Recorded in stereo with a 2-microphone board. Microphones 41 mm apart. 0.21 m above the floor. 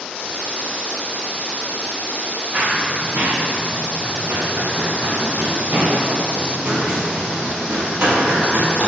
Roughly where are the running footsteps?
Right.